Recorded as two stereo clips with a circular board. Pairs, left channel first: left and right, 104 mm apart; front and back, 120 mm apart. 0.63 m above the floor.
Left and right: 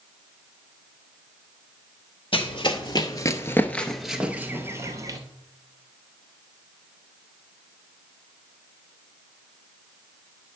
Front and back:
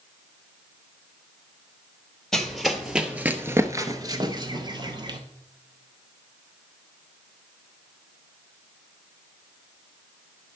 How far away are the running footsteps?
About 1.0 m.